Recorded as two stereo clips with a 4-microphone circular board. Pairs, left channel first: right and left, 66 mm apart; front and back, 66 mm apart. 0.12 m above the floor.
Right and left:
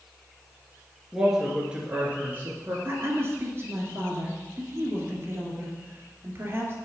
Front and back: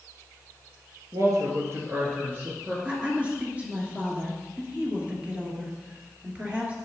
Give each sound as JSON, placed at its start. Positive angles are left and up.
{"t": 1.1, "sound": "a woman speaking", "azimuth_deg": 175, "distance_m": 2.5}
{"t": 2.9, "sound": "a woman speaking", "azimuth_deg": 120, "distance_m": 2.5}